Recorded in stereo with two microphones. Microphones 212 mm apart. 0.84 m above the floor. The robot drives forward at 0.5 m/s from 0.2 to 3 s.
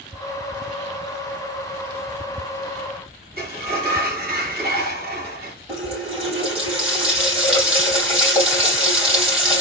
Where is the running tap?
25° right (ahead or behind), 3 m.